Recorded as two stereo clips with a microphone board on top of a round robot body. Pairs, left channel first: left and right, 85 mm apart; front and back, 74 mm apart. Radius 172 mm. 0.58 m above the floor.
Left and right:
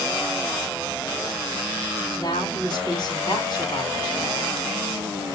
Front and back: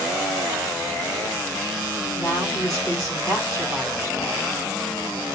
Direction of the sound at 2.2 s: 45° left.